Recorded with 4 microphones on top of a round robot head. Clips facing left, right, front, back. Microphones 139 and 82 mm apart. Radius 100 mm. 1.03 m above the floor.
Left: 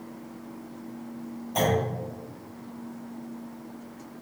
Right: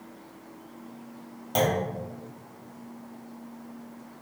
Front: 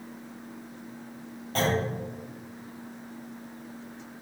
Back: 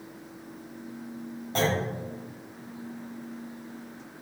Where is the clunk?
105° right, 1.1 m.